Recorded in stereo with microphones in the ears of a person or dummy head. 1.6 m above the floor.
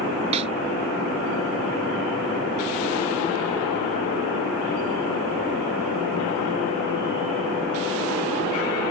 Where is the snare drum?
25° right (ahead or behind).